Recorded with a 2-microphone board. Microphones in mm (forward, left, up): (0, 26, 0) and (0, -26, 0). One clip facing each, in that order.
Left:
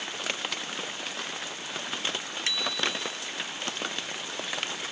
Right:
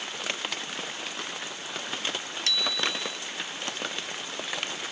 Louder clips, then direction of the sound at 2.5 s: Right 1 dB; 20° left (ahead or behind).